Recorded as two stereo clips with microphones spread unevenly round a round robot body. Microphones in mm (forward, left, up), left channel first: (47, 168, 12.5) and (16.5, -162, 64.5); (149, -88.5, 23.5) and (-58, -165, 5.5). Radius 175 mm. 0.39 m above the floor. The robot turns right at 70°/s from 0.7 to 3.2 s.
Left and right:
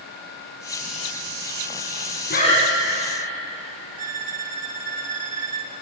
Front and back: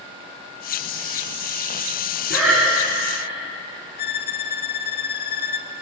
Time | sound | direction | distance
2.3 | breathing | 145° left | 1.6 m
4.0 | a violin | 25° right | 1.1 m